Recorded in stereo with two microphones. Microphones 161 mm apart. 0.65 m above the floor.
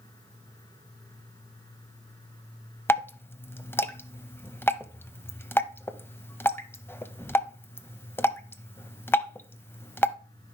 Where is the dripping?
15° left (ahead or behind), 0.6 m.